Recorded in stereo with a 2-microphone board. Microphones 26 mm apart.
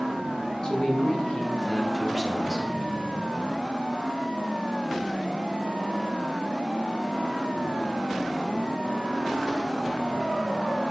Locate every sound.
0.6 s a man speaking: 35° left (ahead or behind), 1.9 m; by 2.7 s 25° left (ahead or behind), 1.4 m